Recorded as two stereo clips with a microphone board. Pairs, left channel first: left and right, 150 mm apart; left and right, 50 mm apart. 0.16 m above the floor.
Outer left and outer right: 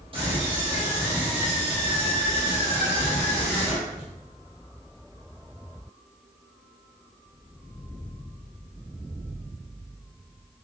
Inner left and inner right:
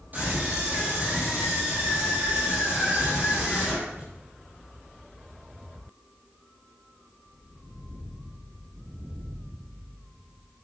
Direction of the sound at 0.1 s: 35° right (ahead or behind).